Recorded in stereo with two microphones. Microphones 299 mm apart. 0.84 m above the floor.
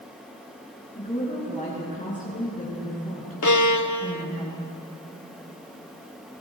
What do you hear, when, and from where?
0.9 s a woman speaking: 25° left (ahead or behind), 9 m
3.4 s a violin: 70° left (ahead or behind), 0.7 m